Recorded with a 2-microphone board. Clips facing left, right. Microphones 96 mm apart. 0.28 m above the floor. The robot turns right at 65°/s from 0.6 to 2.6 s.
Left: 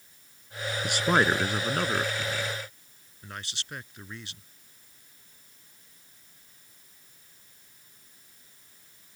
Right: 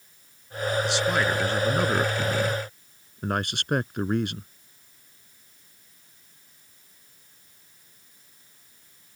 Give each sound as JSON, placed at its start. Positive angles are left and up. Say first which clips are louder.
{"t": 0.8, "sound": "a man speaking", "louder": "left 4 dB", "azimuth_deg": 125}